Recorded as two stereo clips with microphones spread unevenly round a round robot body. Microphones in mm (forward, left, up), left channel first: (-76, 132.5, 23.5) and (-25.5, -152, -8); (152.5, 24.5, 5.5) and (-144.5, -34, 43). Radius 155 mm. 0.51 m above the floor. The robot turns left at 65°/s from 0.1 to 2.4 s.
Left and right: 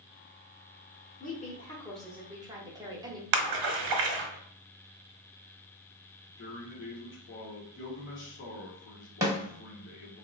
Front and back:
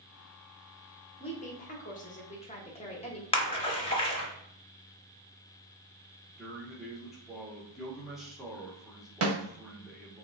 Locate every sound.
1.2 s a woman speaking: 55° left, 0.8 m; by 3.2 s 25° right, 0.8 m
3.3 s a splash: 60° right, 0.8 m
6.3 s a man speaking: 90° left, 0.9 m
9.2 s a snare drum: 145° right, 1.3 m